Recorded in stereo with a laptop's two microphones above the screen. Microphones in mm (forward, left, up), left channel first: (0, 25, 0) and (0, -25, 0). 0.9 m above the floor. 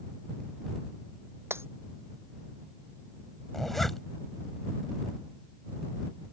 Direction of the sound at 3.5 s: 5° left (ahead or behind).